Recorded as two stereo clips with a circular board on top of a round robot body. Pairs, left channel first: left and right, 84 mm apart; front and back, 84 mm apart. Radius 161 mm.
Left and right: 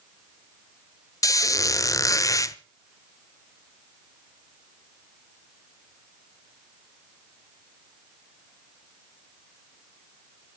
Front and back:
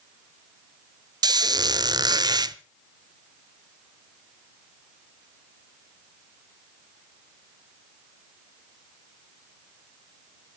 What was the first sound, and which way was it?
A squeak, 140° left.